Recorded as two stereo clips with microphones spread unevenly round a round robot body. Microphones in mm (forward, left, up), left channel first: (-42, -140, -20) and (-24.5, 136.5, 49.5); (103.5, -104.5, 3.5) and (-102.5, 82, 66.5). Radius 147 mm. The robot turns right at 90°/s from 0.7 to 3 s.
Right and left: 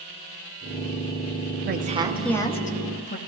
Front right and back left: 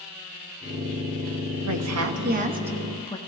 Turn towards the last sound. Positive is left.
turn(degrees=-100)